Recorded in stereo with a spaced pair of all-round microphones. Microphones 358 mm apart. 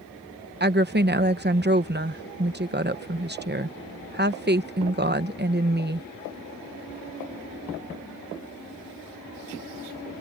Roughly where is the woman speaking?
Right.